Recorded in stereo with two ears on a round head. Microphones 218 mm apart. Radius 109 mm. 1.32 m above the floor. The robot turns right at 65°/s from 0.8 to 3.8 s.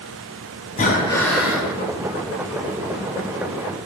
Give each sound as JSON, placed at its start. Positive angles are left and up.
{"t": 0.8, "sound": "breathing", "azimuth_deg": 145, "distance_m": 3.5}